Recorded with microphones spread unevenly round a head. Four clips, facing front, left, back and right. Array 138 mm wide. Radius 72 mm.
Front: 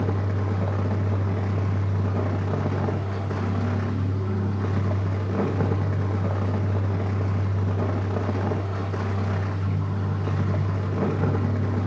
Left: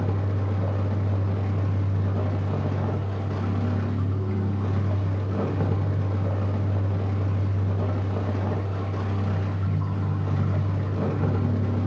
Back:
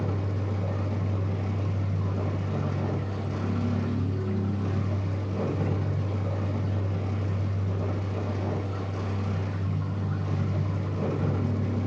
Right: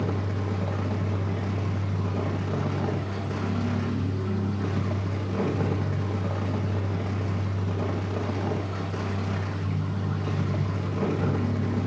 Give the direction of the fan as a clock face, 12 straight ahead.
12 o'clock.